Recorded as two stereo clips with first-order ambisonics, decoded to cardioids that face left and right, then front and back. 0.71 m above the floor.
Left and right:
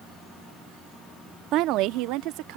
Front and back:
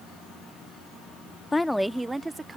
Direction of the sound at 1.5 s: 80° right.